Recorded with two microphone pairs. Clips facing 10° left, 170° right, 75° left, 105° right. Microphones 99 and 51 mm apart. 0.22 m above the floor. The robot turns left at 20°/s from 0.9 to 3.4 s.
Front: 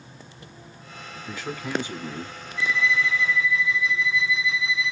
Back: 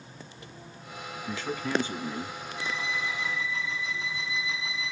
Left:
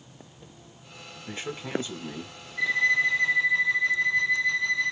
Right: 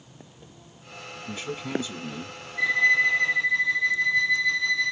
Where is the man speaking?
85° left, 1.2 m; by 2.4 s 65° left, 1.2 m.